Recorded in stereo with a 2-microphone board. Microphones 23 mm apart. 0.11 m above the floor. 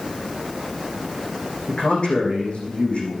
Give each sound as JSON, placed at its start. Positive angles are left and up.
{"t": 1.7, "sound": "a man speaking", "side_deg": 55, "distance_m": 5.5}